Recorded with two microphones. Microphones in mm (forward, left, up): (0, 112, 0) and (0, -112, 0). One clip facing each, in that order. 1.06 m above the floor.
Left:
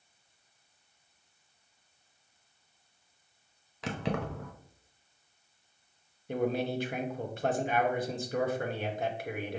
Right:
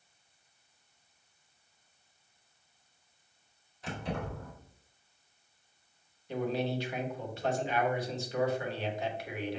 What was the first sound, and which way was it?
Keys jangling, 75° left (ahead or behind).